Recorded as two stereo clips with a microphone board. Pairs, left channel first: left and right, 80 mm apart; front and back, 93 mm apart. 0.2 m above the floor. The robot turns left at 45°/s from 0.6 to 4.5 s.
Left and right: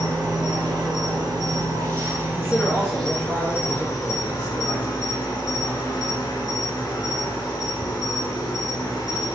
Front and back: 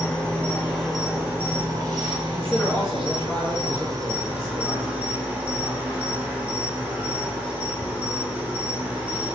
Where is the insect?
75° right, 1.0 m; by 9.4 s 110° left, 1.0 m.